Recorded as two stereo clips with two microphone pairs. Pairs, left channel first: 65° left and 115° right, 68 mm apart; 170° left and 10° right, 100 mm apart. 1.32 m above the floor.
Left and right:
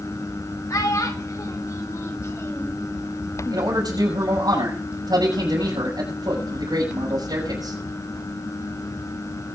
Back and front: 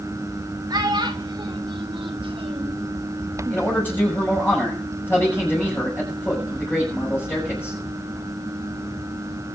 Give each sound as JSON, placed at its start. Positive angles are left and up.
{"t": 0.7, "sound": "a child speaking", "azimuth_deg": 35, "distance_m": 2.5}
{"t": 3.5, "sound": "a man speaking", "azimuth_deg": -120, "distance_m": 6.0}